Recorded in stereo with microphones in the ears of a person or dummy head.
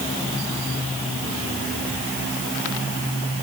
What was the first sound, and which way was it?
Only background noise.